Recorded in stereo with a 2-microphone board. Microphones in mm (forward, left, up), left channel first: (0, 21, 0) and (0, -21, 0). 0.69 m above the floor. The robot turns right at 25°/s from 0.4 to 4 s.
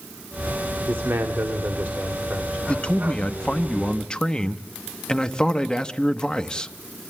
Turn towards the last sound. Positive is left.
turn(degrees=20)  # may be behind; listen again after turning